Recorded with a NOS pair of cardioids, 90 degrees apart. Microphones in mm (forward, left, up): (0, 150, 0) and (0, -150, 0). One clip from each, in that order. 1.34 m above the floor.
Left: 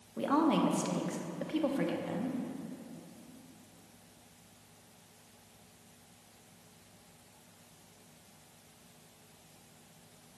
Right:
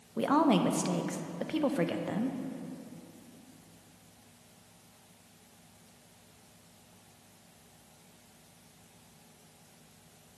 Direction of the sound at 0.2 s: 25° right.